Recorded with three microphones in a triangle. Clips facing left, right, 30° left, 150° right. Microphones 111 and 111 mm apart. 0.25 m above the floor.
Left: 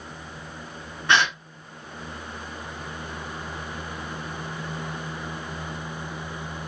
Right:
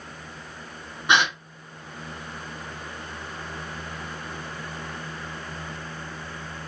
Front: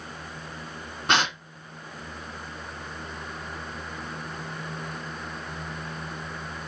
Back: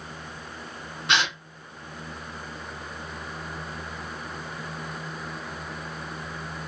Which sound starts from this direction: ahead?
A gasp, at 1.1 s.